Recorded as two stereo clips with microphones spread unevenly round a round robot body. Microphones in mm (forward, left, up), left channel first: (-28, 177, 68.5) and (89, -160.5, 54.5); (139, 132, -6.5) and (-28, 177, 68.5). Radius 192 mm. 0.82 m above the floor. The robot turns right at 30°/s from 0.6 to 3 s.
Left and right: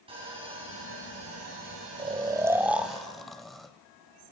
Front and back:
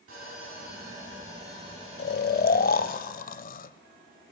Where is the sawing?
145° right, 8.5 m; by 3.0 s 75° right, 8.5 m.